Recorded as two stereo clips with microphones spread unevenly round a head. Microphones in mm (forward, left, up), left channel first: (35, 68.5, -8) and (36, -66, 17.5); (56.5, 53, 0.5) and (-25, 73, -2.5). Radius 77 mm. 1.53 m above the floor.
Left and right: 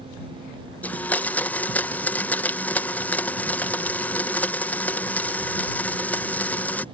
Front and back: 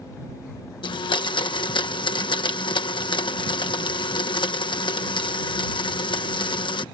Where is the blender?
10° left.